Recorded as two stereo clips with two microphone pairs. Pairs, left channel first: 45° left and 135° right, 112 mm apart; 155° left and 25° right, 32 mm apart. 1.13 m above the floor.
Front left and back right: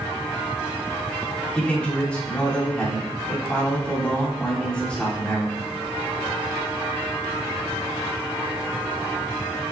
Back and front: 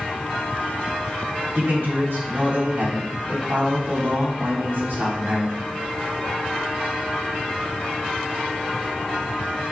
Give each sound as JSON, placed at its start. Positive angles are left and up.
{"t": 1.6, "sound": "a man speaking", "azimuth_deg": -35, "distance_m": 3.0}